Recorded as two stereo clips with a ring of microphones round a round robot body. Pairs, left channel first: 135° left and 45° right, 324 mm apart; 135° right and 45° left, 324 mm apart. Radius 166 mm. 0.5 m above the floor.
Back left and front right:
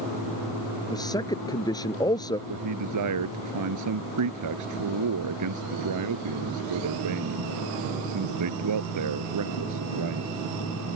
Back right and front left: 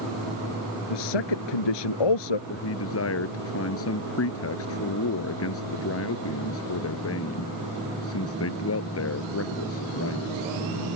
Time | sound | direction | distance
0.9 | a man speaking | 145° right | ?
2.5 | a man speaking | 85° right | ?